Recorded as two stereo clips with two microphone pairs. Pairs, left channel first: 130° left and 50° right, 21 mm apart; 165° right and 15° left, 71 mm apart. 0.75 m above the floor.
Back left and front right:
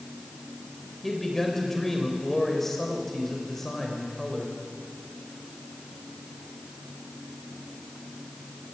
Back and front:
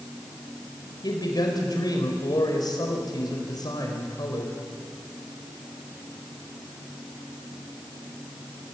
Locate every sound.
1.0 s a man speaking: 155° right, 4 m